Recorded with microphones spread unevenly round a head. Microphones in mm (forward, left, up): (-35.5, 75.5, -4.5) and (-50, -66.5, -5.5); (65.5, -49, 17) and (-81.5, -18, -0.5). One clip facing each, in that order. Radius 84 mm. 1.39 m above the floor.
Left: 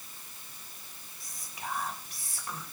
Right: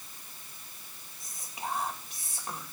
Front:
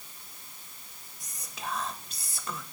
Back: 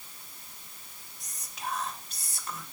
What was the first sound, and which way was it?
Whispering, 20° right.